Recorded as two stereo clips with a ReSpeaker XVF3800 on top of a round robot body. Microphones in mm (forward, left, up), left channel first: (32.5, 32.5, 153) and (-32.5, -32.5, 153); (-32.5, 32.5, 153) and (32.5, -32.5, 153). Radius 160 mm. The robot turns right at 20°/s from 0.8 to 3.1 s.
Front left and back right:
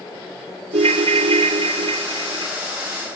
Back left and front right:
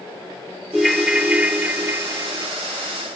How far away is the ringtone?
About 0.7 m.